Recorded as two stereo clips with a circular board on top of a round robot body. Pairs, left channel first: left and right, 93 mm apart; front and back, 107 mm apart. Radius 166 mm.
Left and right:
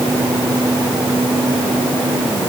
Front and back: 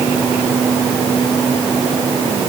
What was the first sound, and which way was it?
Only background noise.